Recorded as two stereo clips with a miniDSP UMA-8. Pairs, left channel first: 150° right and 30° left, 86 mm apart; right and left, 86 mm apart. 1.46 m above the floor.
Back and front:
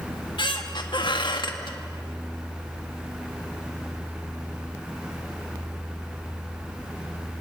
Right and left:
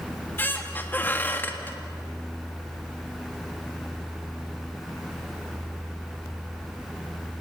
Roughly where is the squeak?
Behind right.